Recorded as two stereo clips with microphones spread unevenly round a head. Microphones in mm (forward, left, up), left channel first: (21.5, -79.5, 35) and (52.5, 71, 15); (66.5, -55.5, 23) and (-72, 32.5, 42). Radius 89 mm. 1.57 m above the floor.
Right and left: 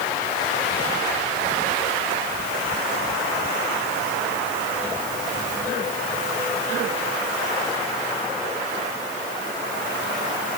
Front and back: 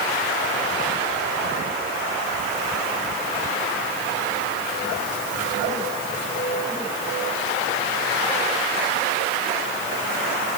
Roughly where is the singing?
No singing in this recording.